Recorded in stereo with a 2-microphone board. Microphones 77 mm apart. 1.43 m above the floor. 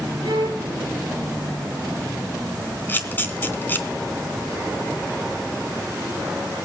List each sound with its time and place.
0.2 s a violin: 80° right, 4.5 m
2.9 s a camera shutter: 25° left (ahead or behind), 3 m